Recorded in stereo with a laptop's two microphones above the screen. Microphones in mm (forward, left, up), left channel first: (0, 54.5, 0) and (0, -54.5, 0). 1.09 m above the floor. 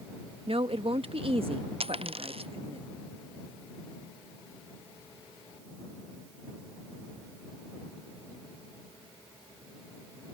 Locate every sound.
0.5 s a woman speaking: 60° right (ahead or behind)
1.8 s a dropped coin: 65° right (ahead or behind)